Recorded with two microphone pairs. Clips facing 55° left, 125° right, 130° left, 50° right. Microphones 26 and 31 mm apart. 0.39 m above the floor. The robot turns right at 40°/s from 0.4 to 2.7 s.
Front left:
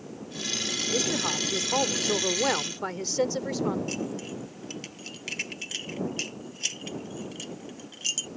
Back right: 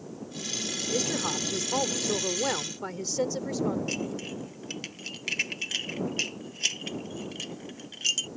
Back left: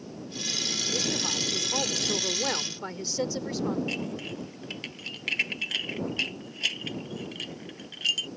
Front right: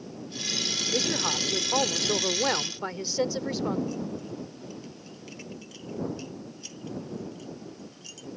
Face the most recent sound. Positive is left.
turn(degrees=160)